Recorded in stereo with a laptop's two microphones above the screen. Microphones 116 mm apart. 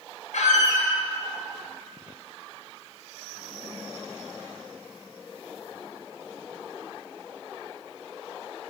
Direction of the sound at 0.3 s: 85° left.